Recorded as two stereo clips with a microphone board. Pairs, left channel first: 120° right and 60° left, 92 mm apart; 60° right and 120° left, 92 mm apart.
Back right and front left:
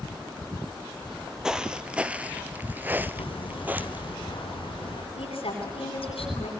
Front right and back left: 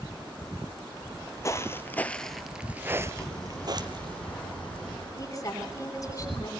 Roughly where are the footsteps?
Ahead right.